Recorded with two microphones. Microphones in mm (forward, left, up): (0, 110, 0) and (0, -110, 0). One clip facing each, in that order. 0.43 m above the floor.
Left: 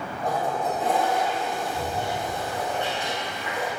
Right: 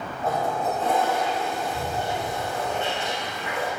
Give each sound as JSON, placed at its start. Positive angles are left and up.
{"t": 0.2, "sound": "a toilet flushing", "side_deg": 15, "distance_m": 5.0}